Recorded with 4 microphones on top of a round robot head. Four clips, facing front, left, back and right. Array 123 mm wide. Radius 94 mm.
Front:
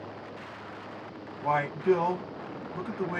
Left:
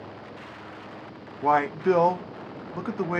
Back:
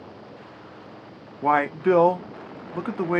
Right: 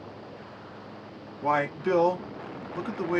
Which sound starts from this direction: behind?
A man speaking, at 1.4 s.